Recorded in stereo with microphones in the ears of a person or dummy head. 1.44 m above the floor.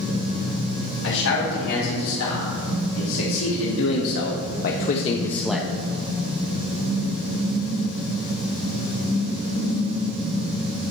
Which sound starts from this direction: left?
A man speaking, at 1.0 s.